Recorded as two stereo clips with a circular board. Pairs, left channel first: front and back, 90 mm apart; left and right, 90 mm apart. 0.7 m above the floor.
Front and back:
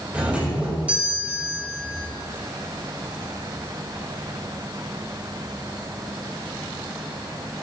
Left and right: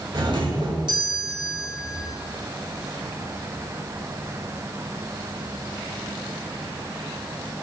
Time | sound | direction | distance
0.1 | a doorbell | 105° right | 3 m